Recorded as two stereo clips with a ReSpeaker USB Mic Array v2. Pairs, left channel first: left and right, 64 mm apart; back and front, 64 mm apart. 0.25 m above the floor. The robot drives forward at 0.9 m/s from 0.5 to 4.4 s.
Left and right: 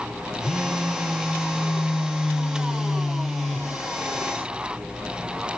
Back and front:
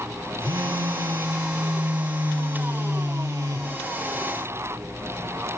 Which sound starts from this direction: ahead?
A phone buzzing, at 0.4 s.